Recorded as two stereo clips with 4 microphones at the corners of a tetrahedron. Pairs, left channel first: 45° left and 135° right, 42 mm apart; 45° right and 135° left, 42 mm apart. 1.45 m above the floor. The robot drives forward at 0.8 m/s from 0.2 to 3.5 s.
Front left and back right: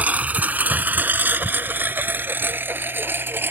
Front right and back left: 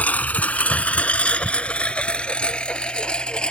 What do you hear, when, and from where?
0.0 s a lawn mower: 90° right; by 3.5 s 110° right